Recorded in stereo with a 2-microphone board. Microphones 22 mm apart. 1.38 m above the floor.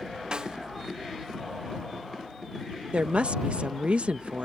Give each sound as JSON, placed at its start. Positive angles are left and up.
{"t": 0.3, "sound": "a snare drum", "side_deg": -35}
{"t": 2.9, "sound": "a woman speaking", "side_deg": -65}